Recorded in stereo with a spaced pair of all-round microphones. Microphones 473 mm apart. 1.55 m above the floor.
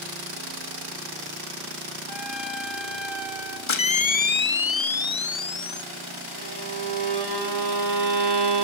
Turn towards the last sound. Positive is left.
turn(degrees=-55)  # may be behind; listen again after turning